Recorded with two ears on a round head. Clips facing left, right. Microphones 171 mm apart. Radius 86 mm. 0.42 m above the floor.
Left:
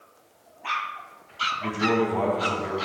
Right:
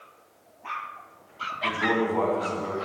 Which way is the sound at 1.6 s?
15° left (ahead or behind).